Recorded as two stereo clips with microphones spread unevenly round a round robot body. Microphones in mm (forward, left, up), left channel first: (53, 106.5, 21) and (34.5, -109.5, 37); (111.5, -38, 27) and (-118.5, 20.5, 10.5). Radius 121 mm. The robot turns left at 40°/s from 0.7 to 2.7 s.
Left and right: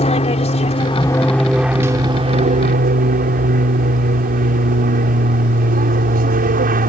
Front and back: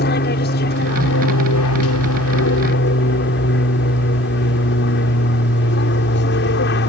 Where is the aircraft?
30° left; by 6.9 s 50° right.